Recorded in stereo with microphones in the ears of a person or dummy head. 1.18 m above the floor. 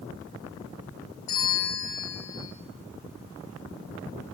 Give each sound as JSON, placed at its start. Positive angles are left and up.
{"t": 1.3, "sound": "a bell", "side_deg": 55, "distance_m": 3.5}